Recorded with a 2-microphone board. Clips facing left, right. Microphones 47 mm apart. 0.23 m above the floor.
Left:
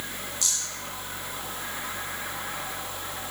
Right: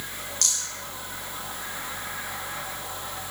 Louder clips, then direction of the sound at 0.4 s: Right 3 dB; 65° right (ahead or behind).